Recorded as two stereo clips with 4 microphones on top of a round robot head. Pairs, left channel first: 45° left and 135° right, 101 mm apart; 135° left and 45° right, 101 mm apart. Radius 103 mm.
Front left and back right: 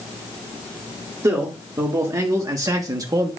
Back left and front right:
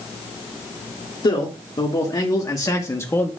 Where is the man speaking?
170° left, 2 m; by 3.3 s 165° right, 1.2 m.